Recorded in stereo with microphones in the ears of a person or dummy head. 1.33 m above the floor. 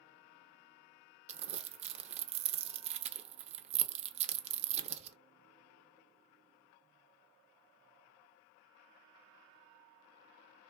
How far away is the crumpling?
About 0.5 m.